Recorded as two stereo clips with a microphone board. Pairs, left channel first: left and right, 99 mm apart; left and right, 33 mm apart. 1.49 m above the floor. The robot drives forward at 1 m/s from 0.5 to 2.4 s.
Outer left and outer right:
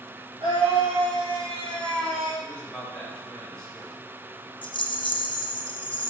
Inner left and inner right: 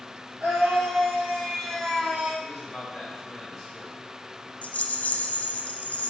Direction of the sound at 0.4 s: 75° right (ahead or behind).